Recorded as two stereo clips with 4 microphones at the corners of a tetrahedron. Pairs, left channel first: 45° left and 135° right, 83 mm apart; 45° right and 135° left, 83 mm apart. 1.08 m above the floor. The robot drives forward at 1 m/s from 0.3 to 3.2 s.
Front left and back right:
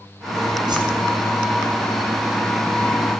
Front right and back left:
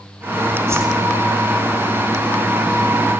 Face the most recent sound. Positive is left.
turn(degrees=-170)